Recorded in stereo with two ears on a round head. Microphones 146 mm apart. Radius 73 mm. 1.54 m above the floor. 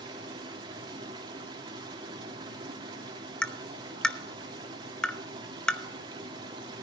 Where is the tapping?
5° left (ahead or behind), 0.9 m.